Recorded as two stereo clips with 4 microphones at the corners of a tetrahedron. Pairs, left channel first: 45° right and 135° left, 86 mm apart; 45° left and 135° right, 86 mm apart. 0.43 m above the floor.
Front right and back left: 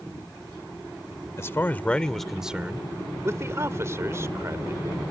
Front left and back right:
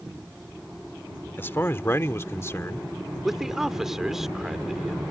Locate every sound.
1.4 s a man speaking: 5° right; by 2.9 s 85° left
3.2 s a man speaking: 145° left